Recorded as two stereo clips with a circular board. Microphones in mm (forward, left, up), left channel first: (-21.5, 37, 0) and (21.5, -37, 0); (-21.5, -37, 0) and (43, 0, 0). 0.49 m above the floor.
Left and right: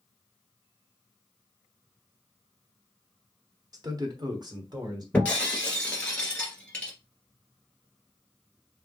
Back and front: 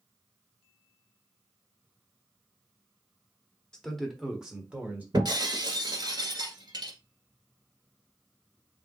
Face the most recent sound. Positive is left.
turn(degrees=45)